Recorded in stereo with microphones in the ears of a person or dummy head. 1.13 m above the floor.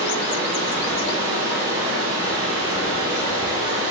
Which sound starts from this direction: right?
Running water, at 0.0 s.